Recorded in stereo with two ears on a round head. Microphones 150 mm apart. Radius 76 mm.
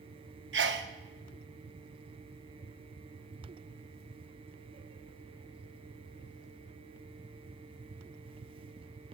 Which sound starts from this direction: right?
A sneeze, at 0.5 s.